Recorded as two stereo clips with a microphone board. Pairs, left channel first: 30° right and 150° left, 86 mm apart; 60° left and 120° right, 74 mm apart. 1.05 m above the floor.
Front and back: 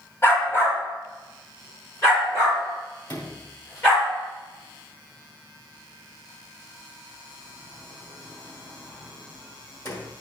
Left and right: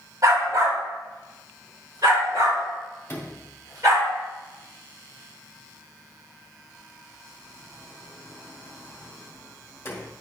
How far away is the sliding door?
About 2 m.